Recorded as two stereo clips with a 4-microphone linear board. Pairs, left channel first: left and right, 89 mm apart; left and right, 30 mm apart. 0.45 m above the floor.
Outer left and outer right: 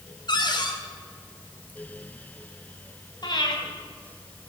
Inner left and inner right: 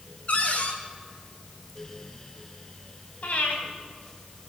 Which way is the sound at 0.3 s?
60° left (ahead or behind).